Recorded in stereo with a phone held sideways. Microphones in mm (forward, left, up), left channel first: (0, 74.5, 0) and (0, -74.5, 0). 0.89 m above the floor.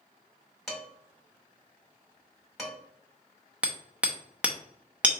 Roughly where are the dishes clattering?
Centre.